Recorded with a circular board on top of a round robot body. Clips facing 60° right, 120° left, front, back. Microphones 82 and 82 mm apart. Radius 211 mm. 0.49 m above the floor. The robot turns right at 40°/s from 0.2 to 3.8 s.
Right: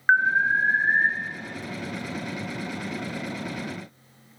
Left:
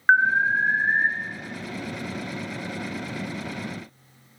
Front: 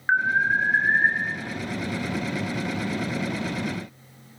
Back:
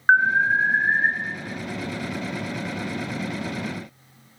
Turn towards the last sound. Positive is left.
turn(degrees=-25)